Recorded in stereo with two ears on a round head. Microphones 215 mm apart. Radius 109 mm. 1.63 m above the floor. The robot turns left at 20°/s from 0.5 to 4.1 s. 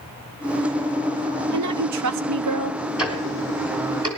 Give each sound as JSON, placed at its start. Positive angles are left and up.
{"t": 1.5, "sound": "a woman speaking", "side_deg": -80, "distance_m": 1.0}
{"t": 3.0, "sound": "ticking", "side_deg": -5, "distance_m": 1.9}